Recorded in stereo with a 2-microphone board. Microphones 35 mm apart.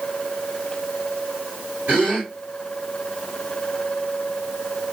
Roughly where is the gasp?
Right.